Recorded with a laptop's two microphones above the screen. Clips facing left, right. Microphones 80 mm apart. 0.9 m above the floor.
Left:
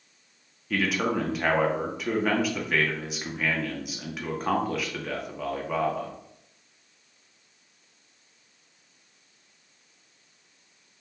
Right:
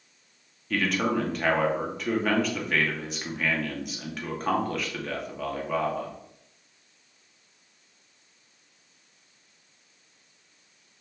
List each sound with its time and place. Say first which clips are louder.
0.7 s a man speaking: even; 5° left (ahead or behind), 0.7 m